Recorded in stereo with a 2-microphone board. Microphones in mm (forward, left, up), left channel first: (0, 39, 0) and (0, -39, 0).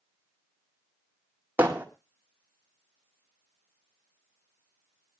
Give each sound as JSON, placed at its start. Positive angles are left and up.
{"t": 1.6, "sound": "hammering", "side_deg": -25, "distance_m": 2.0}